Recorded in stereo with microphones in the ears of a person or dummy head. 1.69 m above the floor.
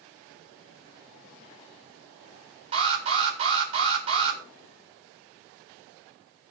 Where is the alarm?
35° right (ahead or behind), 7.5 m.